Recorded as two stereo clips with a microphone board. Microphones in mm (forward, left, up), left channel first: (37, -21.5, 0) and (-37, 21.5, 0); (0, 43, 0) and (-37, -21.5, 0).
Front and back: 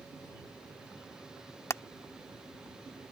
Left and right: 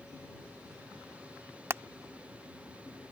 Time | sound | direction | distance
1.7 | hammering | 75° right | ?